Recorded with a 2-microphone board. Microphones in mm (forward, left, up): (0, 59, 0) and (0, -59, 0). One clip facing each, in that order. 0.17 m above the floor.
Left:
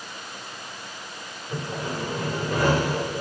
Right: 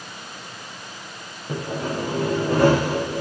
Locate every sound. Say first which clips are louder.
1.5 s sawing: right 4 dB; 75° right (ahead or behind), 5.5 m